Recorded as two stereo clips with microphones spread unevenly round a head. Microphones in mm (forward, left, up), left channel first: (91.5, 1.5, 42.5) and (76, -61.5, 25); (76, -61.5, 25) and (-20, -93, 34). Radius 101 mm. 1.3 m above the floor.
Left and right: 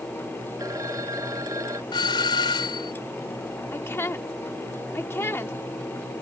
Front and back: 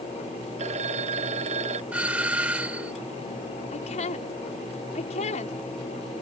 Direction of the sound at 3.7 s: 30° left.